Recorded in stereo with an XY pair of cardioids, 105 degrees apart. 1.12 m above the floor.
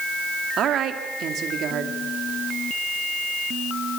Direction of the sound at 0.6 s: 65° right.